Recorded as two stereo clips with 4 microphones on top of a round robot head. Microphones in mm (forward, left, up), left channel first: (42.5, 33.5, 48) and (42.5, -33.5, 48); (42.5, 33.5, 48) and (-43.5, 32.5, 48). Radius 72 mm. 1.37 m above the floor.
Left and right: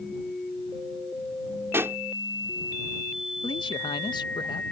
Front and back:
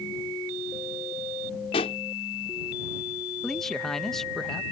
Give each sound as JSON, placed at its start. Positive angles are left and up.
{"t": 1.7, "sound": "a pop", "azimuth_deg": -35}
{"t": 3.4, "sound": "a man speaking", "azimuth_deg": 85}